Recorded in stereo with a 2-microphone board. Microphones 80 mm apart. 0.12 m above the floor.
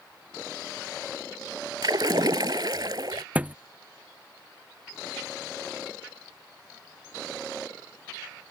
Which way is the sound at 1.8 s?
60° right (ahead or behind).